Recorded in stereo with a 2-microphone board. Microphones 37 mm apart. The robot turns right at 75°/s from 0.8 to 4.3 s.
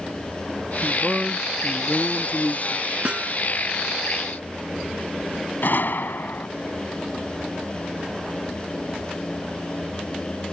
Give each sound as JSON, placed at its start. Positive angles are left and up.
{"t": 0.8, "sound": "a man speaking", "azimuth_deg": -40}
{"t": 3.0, "sound": "a snare drum", "side_deg": -35}
{"t": 5.6, "sound": "a gunshot", "side_deg": 60}